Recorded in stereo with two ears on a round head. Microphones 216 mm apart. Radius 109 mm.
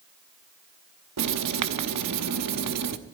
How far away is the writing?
About 0.9 m.